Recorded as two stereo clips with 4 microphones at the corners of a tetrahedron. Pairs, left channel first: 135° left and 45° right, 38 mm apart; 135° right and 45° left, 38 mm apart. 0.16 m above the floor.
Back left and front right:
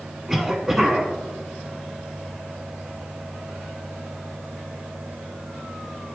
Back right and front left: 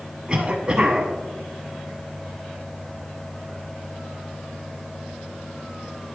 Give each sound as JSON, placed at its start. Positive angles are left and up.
{"t": 0.3, "sound": "a cough", "azimuth_deg": 20, "distance_m": 1.1}